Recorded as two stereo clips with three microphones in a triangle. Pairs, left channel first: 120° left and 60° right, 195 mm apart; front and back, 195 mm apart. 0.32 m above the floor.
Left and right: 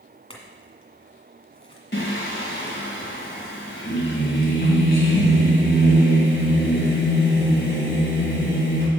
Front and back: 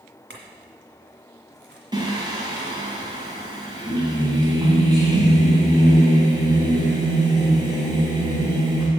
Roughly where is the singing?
Behind left.